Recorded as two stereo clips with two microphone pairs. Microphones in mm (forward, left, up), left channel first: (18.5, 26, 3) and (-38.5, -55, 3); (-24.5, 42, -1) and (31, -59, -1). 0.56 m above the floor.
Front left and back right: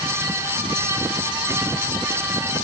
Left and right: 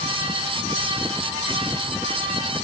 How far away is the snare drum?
No snare drum in this recording.